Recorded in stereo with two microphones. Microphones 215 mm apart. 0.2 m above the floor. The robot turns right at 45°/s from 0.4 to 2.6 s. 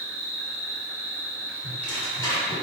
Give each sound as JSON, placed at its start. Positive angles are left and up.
{"t": 0.0, "sound": "an insect", "azimuth_deg": -95, "distance_m": 0.8}
{"t": 1.6, "sound": "tearing paper", "side_deg": 5, "distance_m": 1.5}